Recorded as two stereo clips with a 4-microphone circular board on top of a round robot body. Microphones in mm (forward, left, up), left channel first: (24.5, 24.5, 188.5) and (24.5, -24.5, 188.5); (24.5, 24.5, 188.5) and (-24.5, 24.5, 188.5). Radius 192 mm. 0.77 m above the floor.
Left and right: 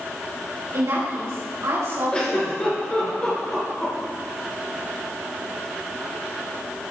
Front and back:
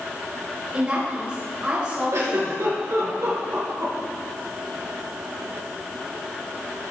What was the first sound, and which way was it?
A woman speaking, 115° right.